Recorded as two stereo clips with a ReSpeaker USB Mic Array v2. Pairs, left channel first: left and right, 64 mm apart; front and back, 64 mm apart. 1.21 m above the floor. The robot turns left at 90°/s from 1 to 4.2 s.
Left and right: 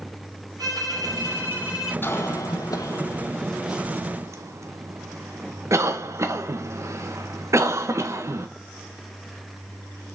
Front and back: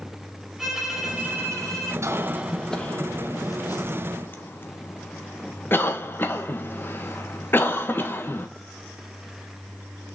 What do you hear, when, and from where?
0.6 s a violin: 95° right, 4 m; by 1.9 s straight behind, 4 m
2.0 s a cough: 145° left, 1.3 m; by 8.5 s 55° right, 1.3 m